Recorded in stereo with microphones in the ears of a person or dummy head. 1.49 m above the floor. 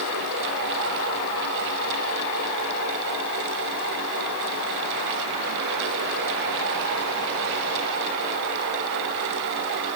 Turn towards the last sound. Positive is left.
No sound to turn to.